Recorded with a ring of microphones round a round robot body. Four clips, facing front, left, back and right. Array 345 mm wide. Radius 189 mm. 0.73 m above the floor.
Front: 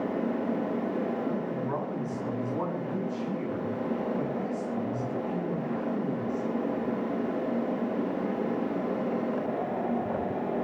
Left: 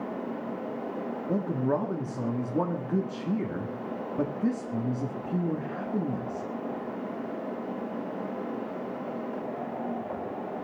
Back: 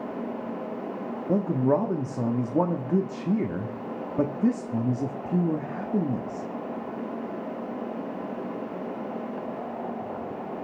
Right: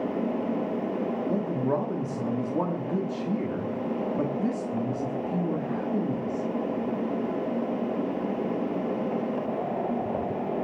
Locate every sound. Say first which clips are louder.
1.3 s a man speaking: left 2 dB, back 7 dB; 170° left, 1.8 m